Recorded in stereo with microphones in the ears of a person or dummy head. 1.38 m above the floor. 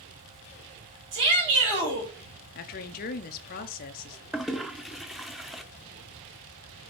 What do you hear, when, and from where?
1.1 s a shout: 60° right (ahead or behind), 5 m
2.5 s a woman speaking: 50° left (ahead or behind), 0.9 m
4.3 s a toilet flushing: centre (ahead or behind), 0.5 m